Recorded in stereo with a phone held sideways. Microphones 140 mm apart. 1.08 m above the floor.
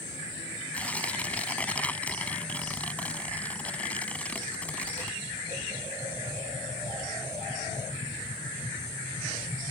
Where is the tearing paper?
10° left (ahead or behind).